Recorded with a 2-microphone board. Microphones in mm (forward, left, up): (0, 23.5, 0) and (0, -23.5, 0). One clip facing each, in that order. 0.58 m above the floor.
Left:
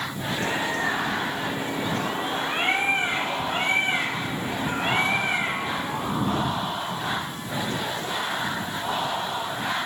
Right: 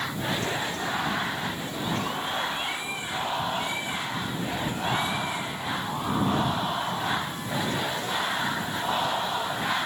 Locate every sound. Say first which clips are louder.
0.4 s a bird: left 4 dB; 50° left (ahead or behind)